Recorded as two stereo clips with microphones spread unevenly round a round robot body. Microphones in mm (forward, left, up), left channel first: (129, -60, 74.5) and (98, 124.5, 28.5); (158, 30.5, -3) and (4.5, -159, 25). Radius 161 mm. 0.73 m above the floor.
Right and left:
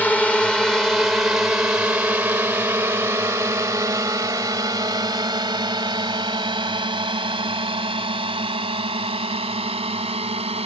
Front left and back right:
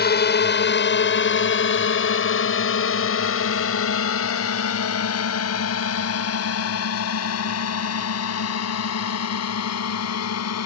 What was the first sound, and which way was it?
A drone, 5° left.